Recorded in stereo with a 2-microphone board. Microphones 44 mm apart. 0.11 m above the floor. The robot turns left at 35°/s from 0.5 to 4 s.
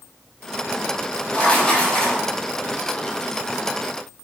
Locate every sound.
1.3 s writing: 45° left, 1.5 m; by 2.2 s 15° left, 1.5 m